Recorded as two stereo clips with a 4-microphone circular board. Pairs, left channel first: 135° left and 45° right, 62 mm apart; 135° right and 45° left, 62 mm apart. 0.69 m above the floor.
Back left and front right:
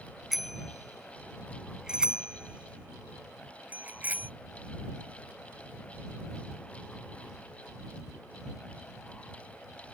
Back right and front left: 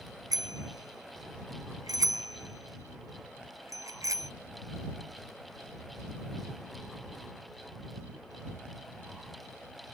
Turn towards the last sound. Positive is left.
turn(degrees=15)